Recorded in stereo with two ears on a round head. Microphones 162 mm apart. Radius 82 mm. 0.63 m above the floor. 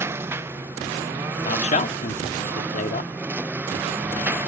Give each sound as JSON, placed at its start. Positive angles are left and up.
{"t": 0.0, "sound": "a lawn mower", "side_deg": -15}
{"t": 1.4, "sound": "a man speaking", "side_deg": 40}